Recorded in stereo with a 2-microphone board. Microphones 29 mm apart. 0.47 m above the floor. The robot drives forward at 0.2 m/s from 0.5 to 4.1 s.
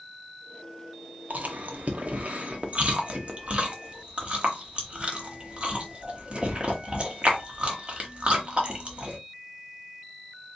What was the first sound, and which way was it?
Chewing, 70° right (ahead or behind).